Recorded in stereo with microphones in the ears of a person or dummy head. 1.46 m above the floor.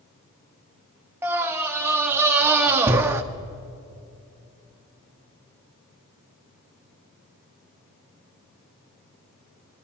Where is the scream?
20° right (ahead or behind), 1.2 m.